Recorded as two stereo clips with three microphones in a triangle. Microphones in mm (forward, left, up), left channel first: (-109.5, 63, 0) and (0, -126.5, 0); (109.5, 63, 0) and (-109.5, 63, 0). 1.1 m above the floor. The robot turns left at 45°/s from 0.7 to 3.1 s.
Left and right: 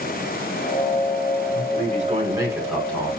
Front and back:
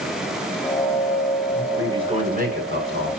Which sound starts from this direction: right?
A man speaking, at 1.5 s.